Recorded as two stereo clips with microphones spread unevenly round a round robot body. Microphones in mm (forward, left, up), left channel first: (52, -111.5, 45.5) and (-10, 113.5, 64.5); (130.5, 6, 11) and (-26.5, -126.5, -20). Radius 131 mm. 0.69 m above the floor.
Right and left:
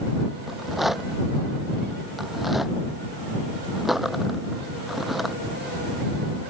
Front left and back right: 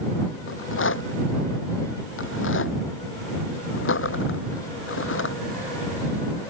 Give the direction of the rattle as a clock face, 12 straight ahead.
11 o'clock.